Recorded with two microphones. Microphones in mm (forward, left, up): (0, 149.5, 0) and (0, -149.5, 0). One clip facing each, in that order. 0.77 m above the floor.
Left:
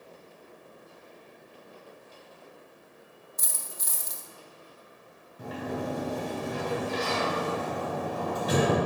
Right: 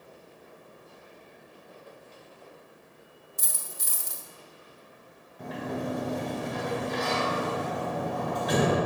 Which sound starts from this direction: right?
A dropped coin, at 3.4 s.